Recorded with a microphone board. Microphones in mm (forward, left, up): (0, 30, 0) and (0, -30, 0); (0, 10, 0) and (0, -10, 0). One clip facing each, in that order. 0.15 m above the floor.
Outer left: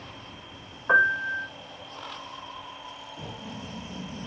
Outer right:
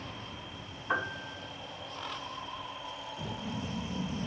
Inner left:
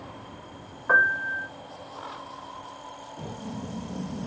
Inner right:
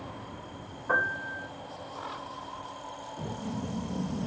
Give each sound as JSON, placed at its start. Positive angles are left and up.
{"t": 0.9, "sound": "a piano", "side_deg": 80, "distance_m": 3.0}
{"t": 3.2, "sound": "knocking", "side_deg": 40, "distance_m": 4.0}